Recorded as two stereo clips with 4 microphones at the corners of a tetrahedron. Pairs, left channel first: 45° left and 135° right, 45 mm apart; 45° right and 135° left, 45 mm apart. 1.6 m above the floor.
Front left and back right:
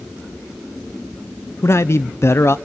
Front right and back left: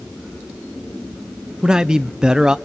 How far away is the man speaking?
About 0.9 m.